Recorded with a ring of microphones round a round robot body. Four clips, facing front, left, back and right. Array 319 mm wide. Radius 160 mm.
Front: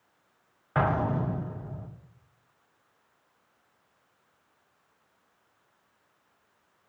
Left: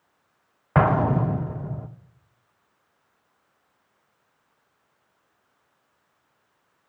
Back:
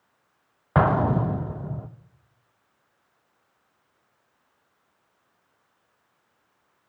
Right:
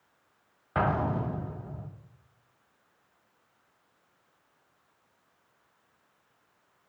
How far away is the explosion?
About 0.8 m.